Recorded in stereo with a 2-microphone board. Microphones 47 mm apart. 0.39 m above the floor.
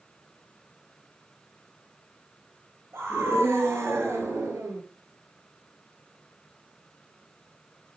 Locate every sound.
2.9 s a scream: 55° right (ahead or behind), 9 m; by 4.8 s 70° right (ahead or behind), 7.5 m